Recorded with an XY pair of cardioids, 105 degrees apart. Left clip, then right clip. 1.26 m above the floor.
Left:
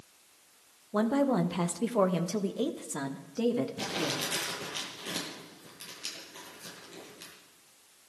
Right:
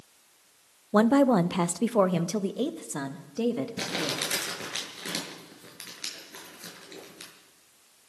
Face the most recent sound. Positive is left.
turn(degrees=-65)